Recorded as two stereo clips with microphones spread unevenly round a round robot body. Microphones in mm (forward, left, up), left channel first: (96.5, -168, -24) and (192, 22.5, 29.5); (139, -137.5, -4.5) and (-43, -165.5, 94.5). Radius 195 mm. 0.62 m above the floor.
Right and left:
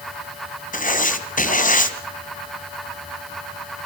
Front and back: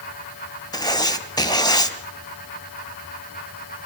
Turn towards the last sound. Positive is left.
turn(degrees=-60)